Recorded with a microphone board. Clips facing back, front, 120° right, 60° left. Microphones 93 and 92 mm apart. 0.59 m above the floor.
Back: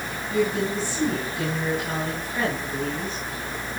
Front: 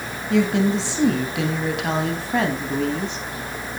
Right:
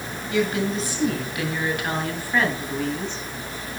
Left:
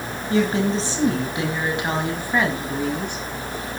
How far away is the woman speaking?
About 4 m.